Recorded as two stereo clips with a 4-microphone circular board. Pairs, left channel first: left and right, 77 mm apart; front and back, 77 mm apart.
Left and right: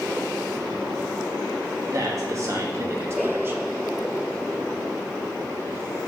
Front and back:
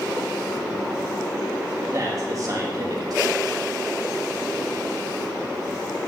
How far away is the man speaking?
About 2.5 m.